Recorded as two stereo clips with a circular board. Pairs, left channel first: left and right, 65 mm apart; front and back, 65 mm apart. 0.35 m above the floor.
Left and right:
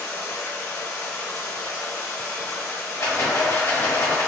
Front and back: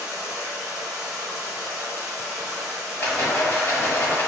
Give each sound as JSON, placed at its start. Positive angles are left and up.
{"t": 0.0, "sound": "running water", "azimuth_deg": 125, "distance_m": 1.5}
{"t": 3.0, "sound": "a rattle", "azimuth_deg": 55, "distance_m": 1.3}